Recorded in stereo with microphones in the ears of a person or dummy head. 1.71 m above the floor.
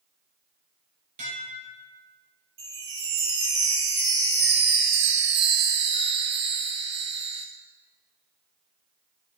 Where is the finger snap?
I don't hear a finger snap.